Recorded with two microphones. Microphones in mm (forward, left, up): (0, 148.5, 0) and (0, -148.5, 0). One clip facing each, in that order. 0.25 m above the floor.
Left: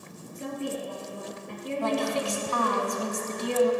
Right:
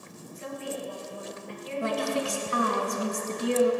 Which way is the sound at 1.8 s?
25° right (ahead or behind).